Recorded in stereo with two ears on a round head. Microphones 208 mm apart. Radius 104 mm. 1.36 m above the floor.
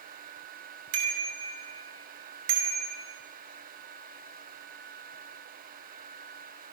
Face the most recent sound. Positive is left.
turn(degrees=-75)  # may be behind; listen again after turning